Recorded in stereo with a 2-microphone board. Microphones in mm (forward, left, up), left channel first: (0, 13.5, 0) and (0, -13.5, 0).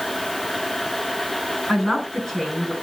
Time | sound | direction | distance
1.7 | a man speaking | 10° left (ahead or behind) | 4.5 m